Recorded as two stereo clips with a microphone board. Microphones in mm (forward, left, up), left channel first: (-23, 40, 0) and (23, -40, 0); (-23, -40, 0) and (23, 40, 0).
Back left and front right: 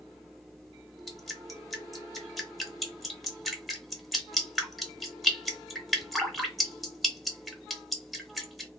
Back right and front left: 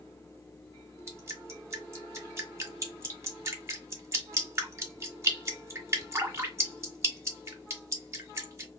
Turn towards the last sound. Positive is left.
turn(degrees=30)